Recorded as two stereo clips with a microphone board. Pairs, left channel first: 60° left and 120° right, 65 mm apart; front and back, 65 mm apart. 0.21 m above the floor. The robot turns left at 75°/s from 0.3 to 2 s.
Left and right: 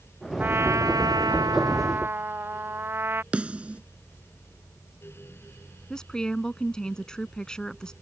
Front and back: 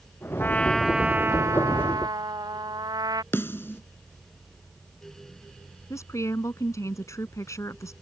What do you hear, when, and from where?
0.4 s a trumpet: 55° right; by 3.2 s 175° right
3.3 s a snare drum: 50° right
5.9 s a woman speaking: 15° right